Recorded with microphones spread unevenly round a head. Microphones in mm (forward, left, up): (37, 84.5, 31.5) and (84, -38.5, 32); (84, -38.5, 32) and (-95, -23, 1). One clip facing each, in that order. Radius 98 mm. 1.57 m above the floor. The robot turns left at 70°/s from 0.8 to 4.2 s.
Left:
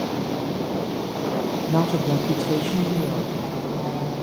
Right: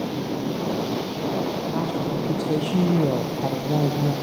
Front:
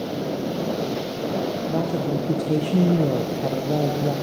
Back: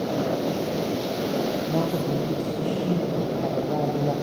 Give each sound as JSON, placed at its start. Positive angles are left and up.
{"t": 1.7, "sound": "a woman speaking", "azimuth_deg": 85, "distance_m": 1.3}